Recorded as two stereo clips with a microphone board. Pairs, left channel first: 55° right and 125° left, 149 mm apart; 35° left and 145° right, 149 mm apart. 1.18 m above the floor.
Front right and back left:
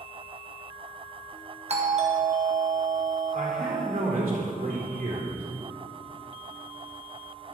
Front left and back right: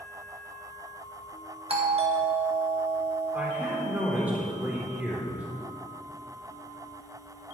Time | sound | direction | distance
1.7 | a doorbell | 165° left | 1.5 m
3.3 | a man speaking | 135° left | 3 m